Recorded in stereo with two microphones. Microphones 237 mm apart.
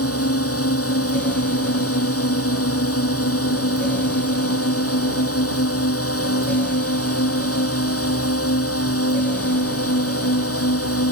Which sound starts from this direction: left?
A drone, at 0.0 s.